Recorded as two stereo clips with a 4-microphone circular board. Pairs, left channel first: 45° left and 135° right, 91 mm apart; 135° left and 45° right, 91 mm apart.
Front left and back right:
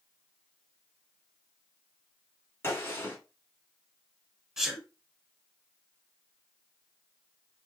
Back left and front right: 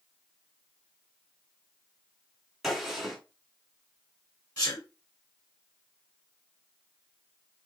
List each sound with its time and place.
2.6 s a gunshot: 40° left, 1.0 m
4.6 s a sneeze: 155° left, 1.1 m